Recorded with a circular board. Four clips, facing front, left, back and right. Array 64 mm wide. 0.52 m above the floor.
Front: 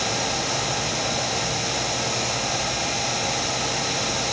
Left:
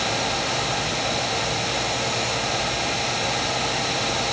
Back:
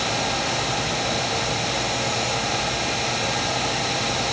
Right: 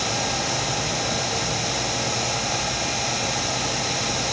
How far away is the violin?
No violin in this recording.